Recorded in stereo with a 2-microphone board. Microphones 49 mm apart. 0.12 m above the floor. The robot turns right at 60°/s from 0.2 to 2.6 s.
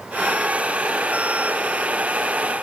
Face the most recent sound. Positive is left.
No sound to turn to.